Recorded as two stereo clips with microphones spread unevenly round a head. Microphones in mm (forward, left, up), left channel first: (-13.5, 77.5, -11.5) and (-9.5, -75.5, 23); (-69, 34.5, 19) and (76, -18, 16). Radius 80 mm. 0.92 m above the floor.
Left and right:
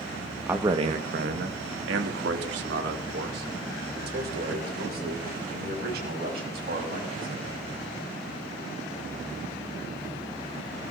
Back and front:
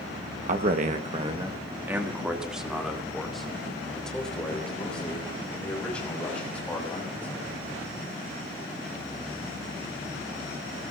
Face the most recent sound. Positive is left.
turn(degrees=-120)